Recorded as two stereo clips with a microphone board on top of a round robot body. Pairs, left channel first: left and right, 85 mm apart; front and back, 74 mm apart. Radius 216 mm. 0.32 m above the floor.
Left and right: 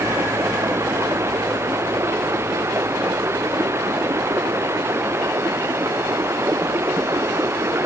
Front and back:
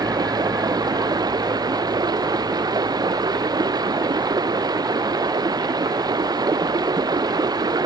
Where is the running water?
150° right.